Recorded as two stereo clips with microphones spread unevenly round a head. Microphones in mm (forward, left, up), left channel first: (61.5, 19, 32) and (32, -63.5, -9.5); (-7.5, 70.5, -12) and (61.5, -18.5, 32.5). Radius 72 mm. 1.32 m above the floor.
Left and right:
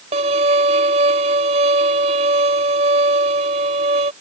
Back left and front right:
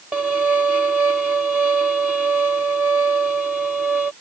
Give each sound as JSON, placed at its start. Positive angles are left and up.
{"t": 0.1, "sound": "a violin", "azimuth_deg": -135}